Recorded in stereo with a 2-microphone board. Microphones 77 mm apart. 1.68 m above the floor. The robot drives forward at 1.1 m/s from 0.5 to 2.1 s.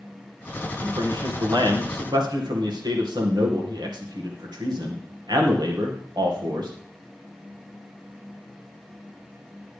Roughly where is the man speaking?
Right.